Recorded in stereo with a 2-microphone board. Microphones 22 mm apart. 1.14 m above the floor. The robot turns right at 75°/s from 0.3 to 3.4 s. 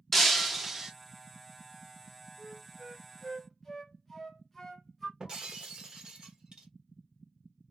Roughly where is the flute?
Right.